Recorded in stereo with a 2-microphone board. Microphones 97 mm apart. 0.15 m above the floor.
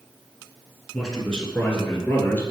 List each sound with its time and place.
0.9 s a man speaking: 5° left (ahead or behind), 1.4 m; by 2.4 s 15° left (ahead or behind), 2 m